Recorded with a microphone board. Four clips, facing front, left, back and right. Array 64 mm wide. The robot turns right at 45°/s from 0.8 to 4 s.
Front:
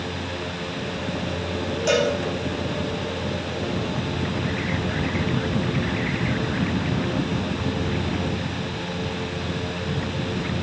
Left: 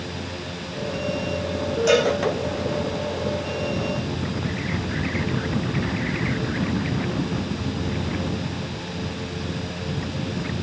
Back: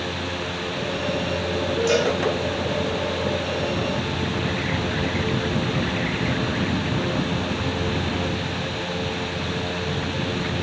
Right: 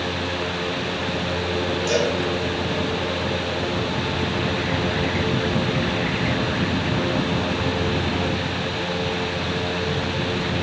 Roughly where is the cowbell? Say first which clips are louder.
Left 4 dB, front 1 dB; ahead left.